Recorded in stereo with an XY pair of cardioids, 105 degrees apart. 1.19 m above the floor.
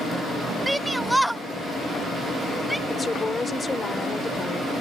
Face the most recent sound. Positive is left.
turn(degrees=25)